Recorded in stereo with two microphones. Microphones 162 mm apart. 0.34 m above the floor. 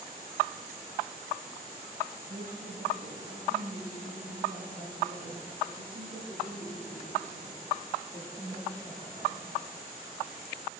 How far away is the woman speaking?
About 9.5 m.